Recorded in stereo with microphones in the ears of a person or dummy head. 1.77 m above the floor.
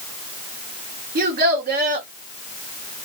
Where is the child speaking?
45° right (ahead or behind), 3 m.